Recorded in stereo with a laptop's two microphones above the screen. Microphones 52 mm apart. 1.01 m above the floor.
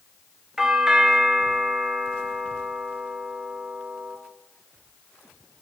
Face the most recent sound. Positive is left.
turn(degrees=-5)  # may be behind; listen again after turning